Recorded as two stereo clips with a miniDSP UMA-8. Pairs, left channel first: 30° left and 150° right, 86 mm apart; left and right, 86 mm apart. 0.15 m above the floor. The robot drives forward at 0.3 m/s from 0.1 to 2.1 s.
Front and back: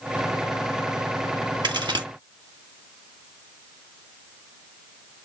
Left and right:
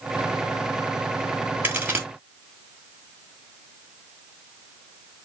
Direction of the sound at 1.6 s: 155° right.